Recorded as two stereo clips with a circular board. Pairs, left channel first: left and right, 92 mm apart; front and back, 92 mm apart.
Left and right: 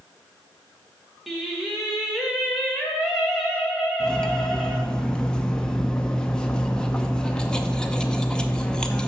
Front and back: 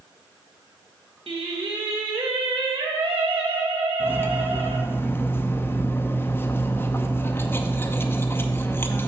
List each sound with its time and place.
1.3 s singing: 175° right, 2 m
4.0 s cutlery clinking: 20° left, 0.7 m